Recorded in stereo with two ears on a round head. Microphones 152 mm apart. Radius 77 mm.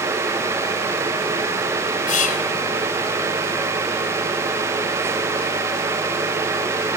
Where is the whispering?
50° left (ahead or behind), 3.5 m.